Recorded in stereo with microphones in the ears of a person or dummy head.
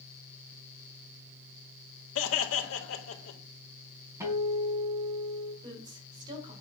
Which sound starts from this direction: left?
Laughter, at 2.1 s.